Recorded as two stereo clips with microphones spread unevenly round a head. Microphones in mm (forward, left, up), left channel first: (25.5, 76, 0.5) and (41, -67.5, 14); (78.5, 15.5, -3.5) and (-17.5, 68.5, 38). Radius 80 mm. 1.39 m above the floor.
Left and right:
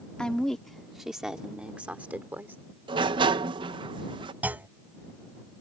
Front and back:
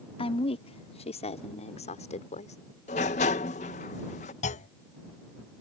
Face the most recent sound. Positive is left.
turn(degrees=-10)